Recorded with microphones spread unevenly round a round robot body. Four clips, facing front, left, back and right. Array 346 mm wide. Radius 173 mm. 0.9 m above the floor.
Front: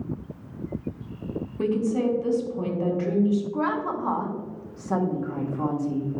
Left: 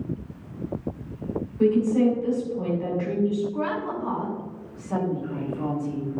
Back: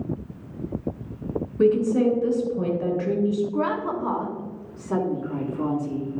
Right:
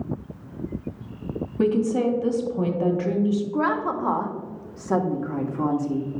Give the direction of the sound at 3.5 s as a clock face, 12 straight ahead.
3 o'clock.